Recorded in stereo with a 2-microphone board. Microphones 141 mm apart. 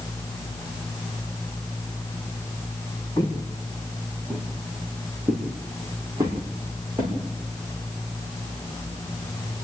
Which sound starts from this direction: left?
Footsteps, at 3.2 s.